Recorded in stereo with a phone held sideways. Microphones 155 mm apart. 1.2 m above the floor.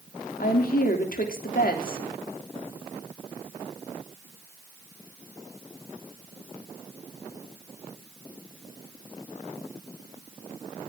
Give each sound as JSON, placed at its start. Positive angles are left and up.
{"t": 0.4, "sound": "a woman speaking", "side_deg": 70, "distance_m": 3.0}